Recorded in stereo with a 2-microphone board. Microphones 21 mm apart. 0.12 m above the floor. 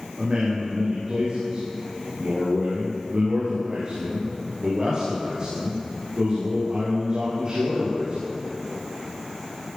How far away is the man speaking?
About 8.5 m.